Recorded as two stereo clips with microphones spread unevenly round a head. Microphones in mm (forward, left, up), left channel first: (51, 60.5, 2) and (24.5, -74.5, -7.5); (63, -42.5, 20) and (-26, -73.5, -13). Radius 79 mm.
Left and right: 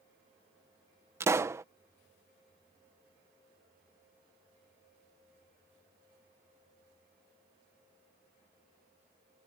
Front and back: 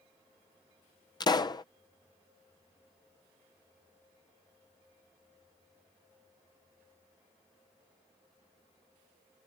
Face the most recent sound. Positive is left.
turn(degrees=-30)